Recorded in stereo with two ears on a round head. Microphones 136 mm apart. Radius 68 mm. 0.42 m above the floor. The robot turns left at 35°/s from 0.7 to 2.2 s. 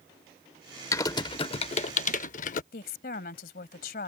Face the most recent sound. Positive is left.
turn(degrees=65)  # may be behind; listen again after turning